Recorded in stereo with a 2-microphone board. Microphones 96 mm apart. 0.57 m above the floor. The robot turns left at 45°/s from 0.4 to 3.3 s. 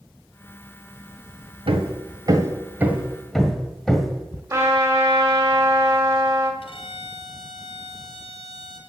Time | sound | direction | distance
1.7 | hammering | 70° right (ahead or behind) | 1.2 m
4.5 | a trumpet | 40° right (ahead or behind) | 1.9 m
6.6 | a violin | 75° left (ahead or behind) | 2.5 m